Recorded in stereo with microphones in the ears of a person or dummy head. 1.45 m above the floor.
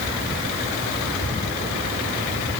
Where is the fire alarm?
I don't hear a fire alarm.